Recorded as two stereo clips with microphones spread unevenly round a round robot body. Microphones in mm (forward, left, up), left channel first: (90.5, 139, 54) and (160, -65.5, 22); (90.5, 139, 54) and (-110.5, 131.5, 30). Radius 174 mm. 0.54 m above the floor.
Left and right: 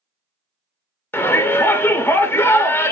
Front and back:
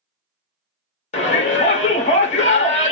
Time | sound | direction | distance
1.1 | a shout | 20° left | 0.6 m